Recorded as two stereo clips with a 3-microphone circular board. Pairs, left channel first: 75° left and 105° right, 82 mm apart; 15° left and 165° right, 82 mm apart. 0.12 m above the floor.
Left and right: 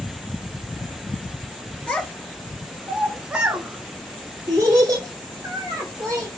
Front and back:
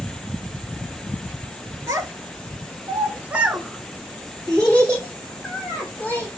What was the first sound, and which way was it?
A child speaking, 150° left.